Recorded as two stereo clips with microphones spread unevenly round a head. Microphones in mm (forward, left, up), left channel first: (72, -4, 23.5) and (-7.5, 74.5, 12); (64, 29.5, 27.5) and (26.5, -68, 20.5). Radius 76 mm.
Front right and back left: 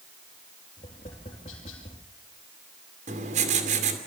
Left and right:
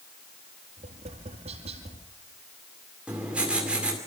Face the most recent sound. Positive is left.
turn(degrees=165)